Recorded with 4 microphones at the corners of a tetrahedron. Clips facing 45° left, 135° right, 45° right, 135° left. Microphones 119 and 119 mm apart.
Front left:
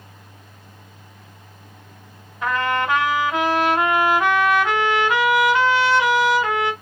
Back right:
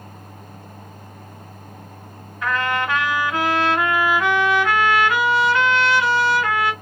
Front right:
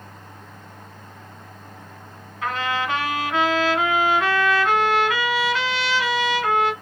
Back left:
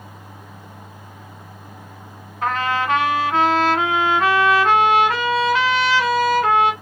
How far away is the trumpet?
About 1.4 m.